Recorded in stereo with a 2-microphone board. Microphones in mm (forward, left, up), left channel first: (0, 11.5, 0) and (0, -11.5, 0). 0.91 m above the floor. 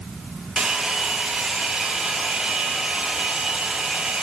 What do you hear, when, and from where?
0.6 s a hair dryer: 45° right (ahead or behind), 0.7 m